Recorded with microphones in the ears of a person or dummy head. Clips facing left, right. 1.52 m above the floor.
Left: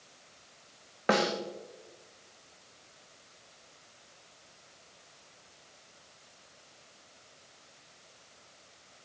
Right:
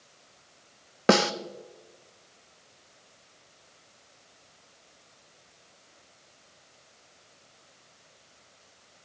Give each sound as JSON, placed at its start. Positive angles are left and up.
{"t": 1.1, "sound": "a snare drum", "side_deg": -50, "distance_m": 0.5}